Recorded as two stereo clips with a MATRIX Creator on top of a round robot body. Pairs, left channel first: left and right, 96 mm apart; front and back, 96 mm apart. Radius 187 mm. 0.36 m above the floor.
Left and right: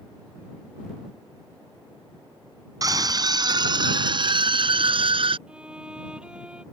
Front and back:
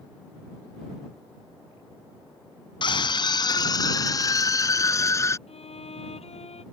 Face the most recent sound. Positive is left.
turn(degrees=-10)